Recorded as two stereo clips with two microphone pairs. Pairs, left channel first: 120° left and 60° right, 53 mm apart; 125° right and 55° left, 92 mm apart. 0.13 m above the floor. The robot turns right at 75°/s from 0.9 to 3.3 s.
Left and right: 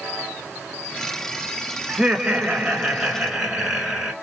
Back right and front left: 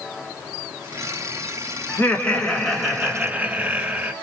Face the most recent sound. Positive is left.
turn(degrees=15)